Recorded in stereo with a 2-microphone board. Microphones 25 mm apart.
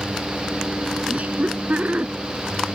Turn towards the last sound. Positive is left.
turn(degrees=-60)  # may be behind; listen again after turning